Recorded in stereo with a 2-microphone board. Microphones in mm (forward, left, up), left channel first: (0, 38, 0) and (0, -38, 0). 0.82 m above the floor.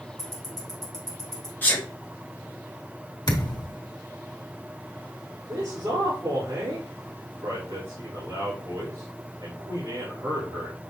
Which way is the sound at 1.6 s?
25° left (ahead or behind).